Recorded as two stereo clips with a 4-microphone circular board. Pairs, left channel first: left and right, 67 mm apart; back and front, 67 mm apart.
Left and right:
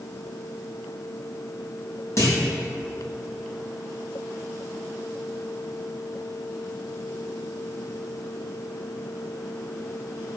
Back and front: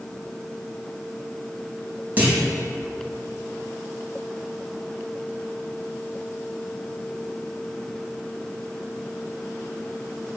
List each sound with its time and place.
2.2 s a clunk: 55° left, 2.5 m